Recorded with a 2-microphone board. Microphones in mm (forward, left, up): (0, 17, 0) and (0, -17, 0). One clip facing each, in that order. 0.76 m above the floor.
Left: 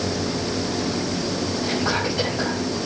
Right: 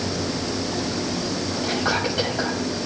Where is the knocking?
No knocking in this recording.